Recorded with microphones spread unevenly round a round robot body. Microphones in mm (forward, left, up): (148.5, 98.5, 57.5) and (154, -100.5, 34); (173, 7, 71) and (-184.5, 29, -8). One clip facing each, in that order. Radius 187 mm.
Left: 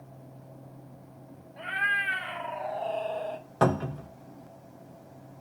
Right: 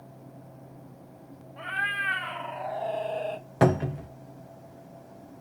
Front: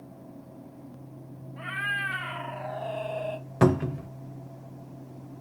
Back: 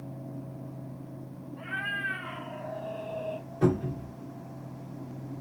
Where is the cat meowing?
15° left, 1.6 m; by 3.5 s 55° right, 0.6 m.